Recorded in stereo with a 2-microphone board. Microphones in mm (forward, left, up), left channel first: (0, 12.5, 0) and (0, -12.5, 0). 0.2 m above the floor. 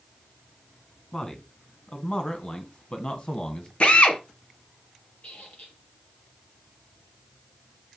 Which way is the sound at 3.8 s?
55° left (ahead or behind).